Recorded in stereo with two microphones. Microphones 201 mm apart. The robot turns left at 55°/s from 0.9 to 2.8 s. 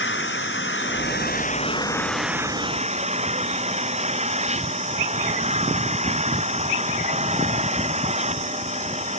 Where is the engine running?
70° left; by 9.2 s 35° right.